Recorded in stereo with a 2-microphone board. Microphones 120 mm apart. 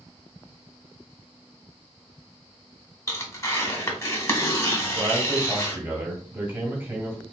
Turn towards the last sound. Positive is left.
turn(degrees=-15)  # may be behind; listen again after turning